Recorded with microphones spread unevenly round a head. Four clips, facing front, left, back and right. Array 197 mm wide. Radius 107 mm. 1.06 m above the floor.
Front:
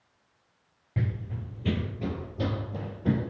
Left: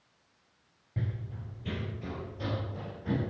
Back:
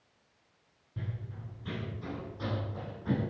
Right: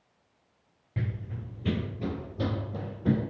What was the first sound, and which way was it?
Running footsteps, 20° right.